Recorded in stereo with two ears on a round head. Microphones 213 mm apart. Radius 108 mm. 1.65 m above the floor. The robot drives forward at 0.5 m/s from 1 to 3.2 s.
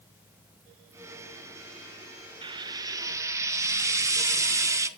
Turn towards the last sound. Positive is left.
turn(degrees=-15)  # may be behind; listen again after turning